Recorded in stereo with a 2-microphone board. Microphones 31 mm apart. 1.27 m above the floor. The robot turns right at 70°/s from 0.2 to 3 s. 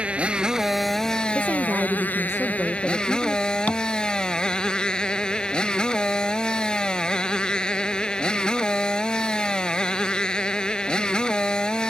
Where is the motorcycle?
40° right; by 11.9 s 155° left.